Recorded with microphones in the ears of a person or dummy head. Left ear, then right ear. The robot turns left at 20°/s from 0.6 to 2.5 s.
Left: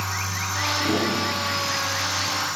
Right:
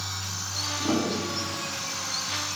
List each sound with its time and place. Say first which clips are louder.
0.8 s a piano: left 4 dB; 25° right (ahead or behind), 7.5 m; by 1.7 s 5° right (ahead or behind), 7.5 m